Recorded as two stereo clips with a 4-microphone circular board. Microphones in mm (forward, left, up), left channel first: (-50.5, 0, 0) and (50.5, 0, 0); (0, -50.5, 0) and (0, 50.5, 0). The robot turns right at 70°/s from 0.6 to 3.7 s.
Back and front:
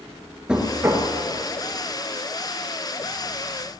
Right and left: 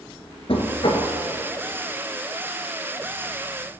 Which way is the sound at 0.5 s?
80° right.